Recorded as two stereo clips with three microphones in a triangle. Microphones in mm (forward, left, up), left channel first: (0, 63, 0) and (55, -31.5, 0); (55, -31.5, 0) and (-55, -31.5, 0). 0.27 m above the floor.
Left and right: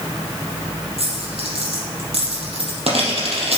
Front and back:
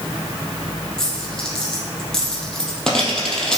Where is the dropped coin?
85° right, 3.5 m.